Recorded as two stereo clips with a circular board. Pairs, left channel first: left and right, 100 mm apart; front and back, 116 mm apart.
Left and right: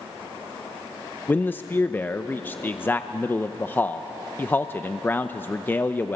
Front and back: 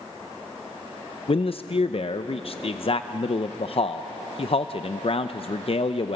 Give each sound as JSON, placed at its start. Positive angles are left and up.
{"t": 1.3, "sound": "a man speaking", "azimuth_deg": 20, "distance_m": 0.6}